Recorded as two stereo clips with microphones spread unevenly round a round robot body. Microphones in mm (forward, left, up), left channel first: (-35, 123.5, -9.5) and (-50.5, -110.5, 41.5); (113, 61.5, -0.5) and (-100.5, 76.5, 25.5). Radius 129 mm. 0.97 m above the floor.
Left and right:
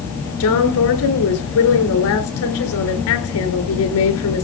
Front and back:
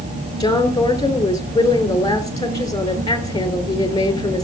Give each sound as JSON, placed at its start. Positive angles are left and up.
{"t": 0.4, "sound": "a woman speaking", "azimuth_deg": 65, "distance_m": 4.0}